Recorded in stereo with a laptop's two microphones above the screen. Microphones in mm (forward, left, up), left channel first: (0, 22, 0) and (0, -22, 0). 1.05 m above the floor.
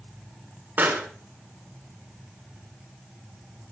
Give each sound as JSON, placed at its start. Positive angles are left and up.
{"t": 0.8, "sound": "a pop", "side_deg": -50, "distance_m": 2.5}